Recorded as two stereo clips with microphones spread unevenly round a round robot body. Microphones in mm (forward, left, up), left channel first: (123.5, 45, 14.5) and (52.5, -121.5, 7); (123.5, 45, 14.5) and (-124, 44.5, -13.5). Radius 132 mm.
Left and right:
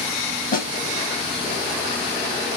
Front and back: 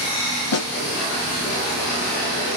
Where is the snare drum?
25° left, 2 m.